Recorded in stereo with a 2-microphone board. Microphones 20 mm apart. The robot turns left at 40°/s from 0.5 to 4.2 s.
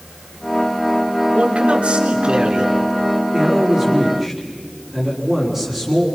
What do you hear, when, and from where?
1.4 s a man speaking: 80° right, 3.5 m; by 2.7 s 135° right, 3.5 m
3.3 s a man speaking: 140° right, 4 m; by 6.0 s 175° right, 4 m